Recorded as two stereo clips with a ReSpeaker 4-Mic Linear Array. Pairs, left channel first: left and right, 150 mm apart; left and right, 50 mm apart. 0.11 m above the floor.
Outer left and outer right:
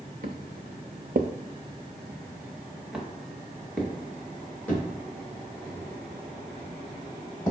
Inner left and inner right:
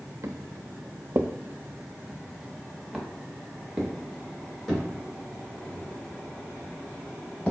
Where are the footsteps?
65° right (ahead or behind), 0.7 m; by 7.5 s 15° left (ahead or behind), 4 m.